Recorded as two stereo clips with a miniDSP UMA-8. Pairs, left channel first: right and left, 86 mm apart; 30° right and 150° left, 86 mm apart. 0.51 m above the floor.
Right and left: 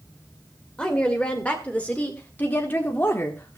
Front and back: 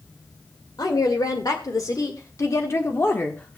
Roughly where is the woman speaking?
Ahead.